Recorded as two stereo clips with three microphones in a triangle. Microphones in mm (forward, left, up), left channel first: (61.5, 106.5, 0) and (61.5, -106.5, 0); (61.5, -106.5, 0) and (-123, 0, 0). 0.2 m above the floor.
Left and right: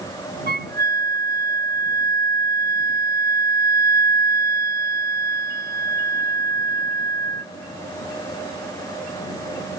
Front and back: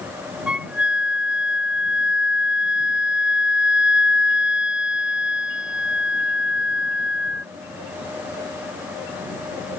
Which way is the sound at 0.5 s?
125° right.